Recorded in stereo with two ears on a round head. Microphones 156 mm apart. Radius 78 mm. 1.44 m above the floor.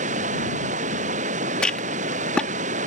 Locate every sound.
0.0 s running water: 45° right (ahead or behind)
1.6 s a rattle: 5° left (ahead or behind)